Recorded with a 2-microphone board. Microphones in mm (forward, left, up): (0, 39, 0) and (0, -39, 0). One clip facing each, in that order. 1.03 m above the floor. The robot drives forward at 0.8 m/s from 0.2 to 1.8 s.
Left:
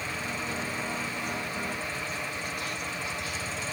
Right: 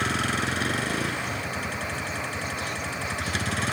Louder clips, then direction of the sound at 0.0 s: Right 8 dB; 80° right.